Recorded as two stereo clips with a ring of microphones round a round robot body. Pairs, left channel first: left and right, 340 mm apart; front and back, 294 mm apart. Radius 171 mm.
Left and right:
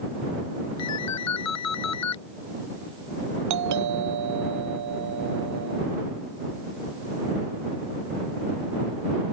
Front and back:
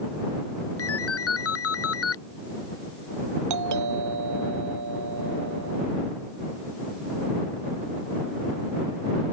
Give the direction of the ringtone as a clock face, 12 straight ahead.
11 o'clock.